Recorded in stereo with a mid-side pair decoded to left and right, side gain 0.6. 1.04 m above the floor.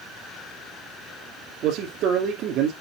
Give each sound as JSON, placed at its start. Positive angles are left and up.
{"t": 1.6, "sound": "a man speaking", "azimuth_deg": -65, "distance_m": 2.5}